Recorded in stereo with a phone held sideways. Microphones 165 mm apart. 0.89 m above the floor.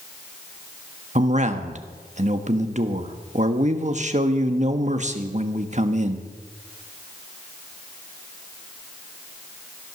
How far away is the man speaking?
About 1.2 m.